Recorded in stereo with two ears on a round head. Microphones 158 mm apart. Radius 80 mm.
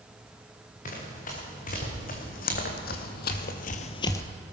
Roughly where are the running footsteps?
Left.